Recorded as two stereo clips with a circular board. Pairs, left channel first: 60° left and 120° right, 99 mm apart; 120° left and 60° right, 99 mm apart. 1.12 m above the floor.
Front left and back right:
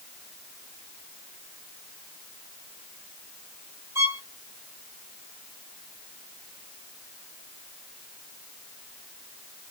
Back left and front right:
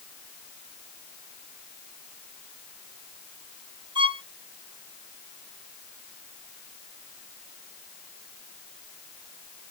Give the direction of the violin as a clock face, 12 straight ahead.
2 o'clock.